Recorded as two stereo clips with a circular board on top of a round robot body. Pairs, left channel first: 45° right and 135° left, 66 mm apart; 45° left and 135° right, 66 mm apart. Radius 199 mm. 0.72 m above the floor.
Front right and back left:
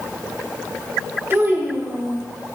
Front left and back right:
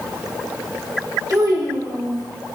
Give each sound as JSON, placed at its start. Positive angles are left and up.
{"t": 1.3, "sound": "a child speaking", "azimuth_deg": -170, "distance_m": 1.7}